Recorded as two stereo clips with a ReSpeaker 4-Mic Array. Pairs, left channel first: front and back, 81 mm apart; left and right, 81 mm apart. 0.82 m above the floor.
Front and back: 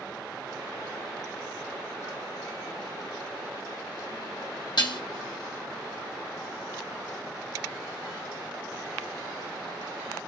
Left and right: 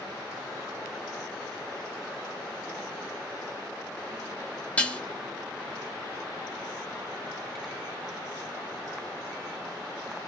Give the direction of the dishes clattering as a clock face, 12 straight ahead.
11 o'clock.